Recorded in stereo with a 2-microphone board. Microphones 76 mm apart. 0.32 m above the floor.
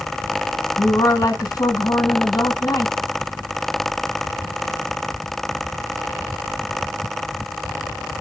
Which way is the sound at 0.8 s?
45° left (ahead or behind).